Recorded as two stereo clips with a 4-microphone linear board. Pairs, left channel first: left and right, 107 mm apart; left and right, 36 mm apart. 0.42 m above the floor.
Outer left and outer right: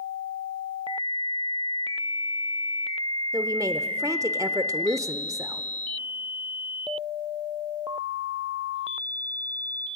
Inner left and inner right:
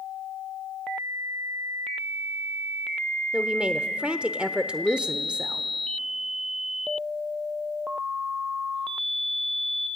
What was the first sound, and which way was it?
A woman speaking, 30° right (ahead or behind).